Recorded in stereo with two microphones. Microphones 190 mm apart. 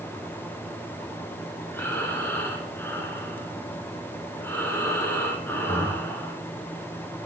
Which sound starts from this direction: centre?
Breathing, at 1.7 s.